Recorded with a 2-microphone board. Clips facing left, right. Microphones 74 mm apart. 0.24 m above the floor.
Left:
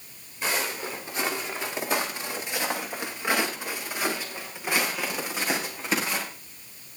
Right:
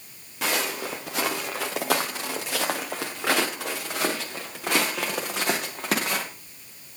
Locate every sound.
0.4 s footsteps: 85° right, 5 m; by 6.2 s 70° right (ahead or behind), 8 m